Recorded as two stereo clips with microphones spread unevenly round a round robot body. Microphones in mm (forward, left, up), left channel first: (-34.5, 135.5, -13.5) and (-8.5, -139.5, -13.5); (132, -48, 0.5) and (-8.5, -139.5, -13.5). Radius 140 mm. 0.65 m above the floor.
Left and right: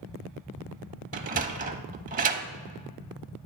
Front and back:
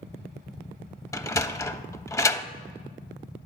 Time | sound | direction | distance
1.1 | a sliding door | 30° right | 0.6 m